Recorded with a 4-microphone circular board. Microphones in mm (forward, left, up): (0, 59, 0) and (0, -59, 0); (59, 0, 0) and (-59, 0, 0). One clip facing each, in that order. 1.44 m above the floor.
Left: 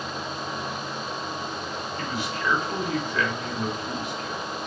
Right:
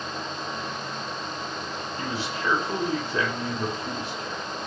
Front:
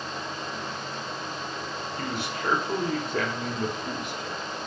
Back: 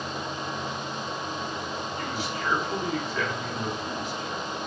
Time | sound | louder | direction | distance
2.0 | a man speaking | even, front 2 dB | 30° right | 1.3 m